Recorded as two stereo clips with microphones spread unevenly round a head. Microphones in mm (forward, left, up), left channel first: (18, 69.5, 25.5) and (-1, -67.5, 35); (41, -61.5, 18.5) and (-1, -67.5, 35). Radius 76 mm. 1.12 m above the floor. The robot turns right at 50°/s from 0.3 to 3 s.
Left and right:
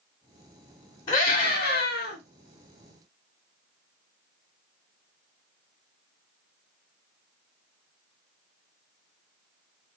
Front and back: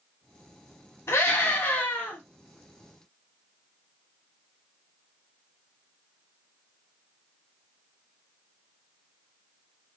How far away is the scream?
About 1.2 m.